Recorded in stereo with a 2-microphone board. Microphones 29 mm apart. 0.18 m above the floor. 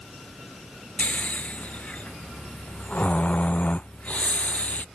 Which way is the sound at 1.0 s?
55° left (ahead or behind).